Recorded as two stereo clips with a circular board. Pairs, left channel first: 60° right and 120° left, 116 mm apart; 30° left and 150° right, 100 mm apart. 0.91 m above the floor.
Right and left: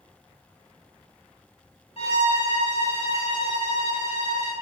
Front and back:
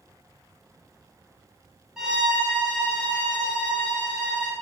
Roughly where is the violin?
Ahead right.